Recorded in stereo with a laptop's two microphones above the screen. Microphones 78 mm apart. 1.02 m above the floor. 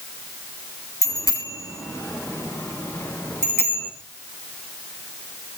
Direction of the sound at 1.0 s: 55° left (ahead or behind).